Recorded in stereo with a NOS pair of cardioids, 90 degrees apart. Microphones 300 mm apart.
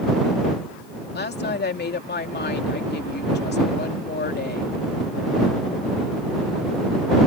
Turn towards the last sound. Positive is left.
turn(degrees=35)